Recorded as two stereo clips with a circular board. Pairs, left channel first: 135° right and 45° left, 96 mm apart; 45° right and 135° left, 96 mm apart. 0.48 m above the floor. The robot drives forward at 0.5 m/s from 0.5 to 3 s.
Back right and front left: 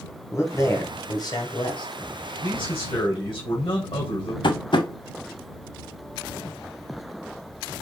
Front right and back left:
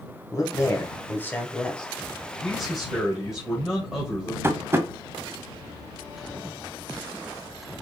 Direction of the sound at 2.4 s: 130° right.